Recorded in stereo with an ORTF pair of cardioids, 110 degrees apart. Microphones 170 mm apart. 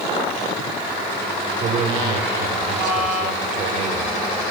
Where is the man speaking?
50° right, 4.5 m.